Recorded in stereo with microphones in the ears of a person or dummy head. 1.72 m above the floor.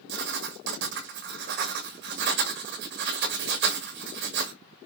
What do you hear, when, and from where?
0.1 s writing: 60° right (ahead or behind), 2 m